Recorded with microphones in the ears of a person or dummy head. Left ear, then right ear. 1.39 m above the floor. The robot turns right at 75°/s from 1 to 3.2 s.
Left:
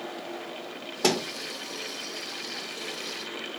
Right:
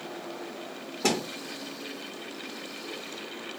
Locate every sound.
1.0 s a thud: 75° left (ahead or behind), 2.5 m